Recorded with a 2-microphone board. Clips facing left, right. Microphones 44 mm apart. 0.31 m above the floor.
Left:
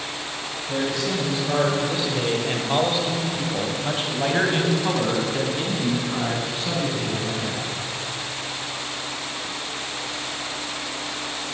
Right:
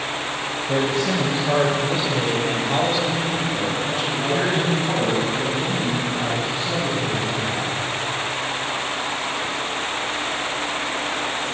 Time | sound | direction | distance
0.7 | a man speaking | 40° right (ahead or behind) | 1.2 m